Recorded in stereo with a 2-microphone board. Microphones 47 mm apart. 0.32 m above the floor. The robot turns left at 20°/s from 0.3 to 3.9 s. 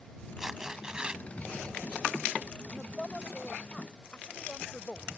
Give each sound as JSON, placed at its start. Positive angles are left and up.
{"t": 0.4, "sound": "tearing paper", "side_deg": -10}
{"t": 2.7, "sound": "a woman speaking", "side_deg": 10}